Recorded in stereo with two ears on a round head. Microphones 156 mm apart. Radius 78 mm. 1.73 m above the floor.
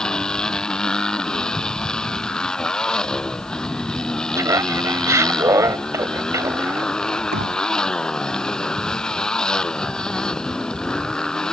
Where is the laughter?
15° right (ahead or behind).